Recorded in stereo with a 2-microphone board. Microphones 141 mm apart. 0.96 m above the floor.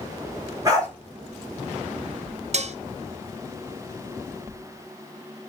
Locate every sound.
0.7 s a dog barking: 25° right (ahead or behind), 3.5 m
2.5 s dishes clattering: 55° right (ahead or behind), 0.6 m